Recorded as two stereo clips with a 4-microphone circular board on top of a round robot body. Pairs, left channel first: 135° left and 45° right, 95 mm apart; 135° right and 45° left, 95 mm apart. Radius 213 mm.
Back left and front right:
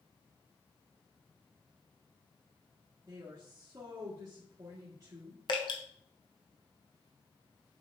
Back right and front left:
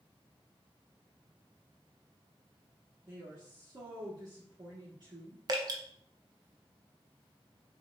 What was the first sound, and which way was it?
A woman speaking, 5° left.